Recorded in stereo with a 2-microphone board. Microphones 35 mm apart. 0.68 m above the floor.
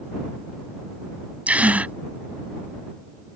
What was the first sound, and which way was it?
A gasp, 45° right (ahead or behind).